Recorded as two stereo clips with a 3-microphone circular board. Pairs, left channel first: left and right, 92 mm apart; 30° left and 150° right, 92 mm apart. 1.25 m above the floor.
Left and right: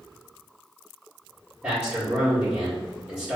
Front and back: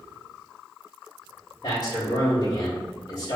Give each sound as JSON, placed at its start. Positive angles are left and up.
{"t": 1.6, "sound": "a man speaking", "azimuth_deg": -20, "distance_m": 1.9}